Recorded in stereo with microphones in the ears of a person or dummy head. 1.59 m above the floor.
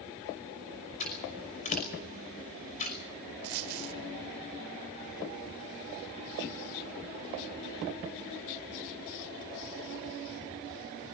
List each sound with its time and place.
1.0 s scissors: 40° left (ahead or behind), 5.5 m
3.4 s a dropped coin: 45° right (ahead or behind), 1.8 m